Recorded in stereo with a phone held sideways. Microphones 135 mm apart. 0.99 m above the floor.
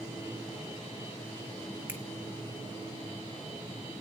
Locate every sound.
1.9 s a finger snap: 15° right (ahead or behind), 1.6 m